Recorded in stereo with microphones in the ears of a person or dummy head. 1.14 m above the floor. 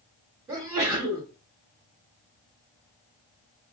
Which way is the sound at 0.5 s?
15° right (ahead or behind).